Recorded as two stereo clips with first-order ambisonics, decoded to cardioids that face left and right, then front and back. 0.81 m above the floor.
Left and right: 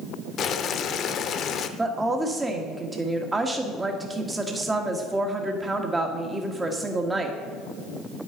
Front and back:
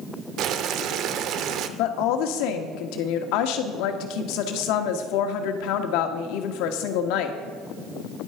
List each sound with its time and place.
0.4 s boiling: 140° left, 0.7 m
1.8 s a woman speaking: 10° right, 1.5 m